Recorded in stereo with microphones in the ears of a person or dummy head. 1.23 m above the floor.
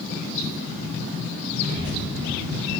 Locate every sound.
1.6 s a child speaking: 40° right (ahead or behind), 1.1 m; by 2.7 s 10° left (ahead or behind), 1.0 m